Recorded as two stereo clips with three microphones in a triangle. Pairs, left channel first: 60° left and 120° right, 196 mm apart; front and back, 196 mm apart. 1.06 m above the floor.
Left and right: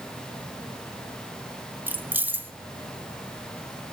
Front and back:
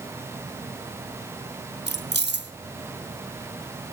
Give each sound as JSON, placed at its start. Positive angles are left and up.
{"t": 1.9, "sound": "keys jangling", "azimuth_deg": 160, "distance_m": 1.0}